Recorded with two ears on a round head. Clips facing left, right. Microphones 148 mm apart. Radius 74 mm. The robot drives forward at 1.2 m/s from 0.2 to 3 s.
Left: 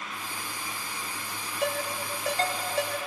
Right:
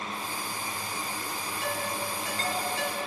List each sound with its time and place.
1.6 s a ringtone: 50° left (ahead or behind), 4.5 m; by 3.0 s 40° left (ahead or behind), 5.5 m